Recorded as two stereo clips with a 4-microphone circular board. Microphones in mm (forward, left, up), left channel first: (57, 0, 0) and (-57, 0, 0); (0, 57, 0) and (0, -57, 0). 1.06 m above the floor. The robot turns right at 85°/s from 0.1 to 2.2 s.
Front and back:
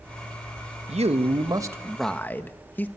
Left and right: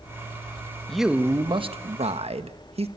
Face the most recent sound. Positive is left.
turn(degrees=-75)